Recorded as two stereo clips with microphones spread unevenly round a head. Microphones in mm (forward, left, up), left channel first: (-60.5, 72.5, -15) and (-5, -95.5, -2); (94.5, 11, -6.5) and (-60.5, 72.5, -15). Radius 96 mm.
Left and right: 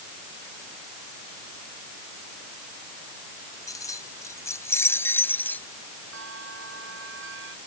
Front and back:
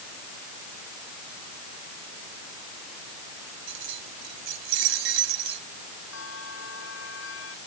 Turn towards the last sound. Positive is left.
turn(degrees=-40)